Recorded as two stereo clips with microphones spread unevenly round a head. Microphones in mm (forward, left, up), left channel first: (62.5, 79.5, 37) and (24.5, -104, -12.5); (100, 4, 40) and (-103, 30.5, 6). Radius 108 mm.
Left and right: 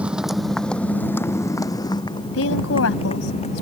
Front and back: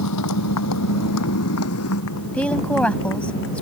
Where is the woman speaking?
75° left.